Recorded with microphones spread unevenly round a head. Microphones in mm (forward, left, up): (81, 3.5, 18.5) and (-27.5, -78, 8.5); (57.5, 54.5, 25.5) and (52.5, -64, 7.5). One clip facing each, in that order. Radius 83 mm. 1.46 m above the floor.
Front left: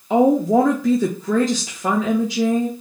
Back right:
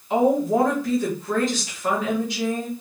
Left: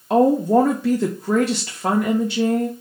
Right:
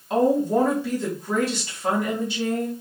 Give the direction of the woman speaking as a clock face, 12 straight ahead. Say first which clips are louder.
Front left 4 dB, left 4 dB; 10 o'clock.